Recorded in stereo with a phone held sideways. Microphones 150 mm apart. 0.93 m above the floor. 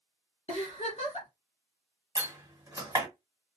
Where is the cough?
No cough in this recording.